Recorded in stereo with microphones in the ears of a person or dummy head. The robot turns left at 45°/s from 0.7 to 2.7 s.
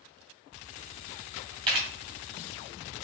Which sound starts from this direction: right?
A camera shutter, at 1.7 s.